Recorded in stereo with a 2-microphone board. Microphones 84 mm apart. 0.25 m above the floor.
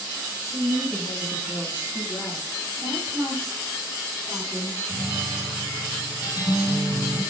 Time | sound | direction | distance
0.4 | a woman speaking | 35° left (ahead or behind) | 1.3 m
2.8 | a woman speaking | 15° left (ahead or behind) | 4 m
4.9 | a guitar | 55° left (ahead or behind) | 4.5 m